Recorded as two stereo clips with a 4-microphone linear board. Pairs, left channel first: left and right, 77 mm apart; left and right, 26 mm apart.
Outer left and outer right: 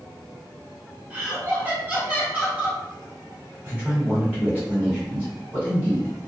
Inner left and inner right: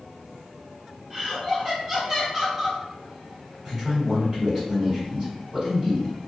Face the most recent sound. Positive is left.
turn(degrees=-20)  # may be behind; listen again after turning